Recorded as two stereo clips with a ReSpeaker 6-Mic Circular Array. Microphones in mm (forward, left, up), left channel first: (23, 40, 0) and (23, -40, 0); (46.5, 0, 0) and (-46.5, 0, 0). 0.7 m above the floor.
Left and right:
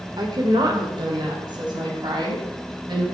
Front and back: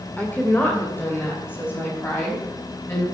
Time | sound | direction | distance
0.2 | a woman speaking | 70° right | 2.5 m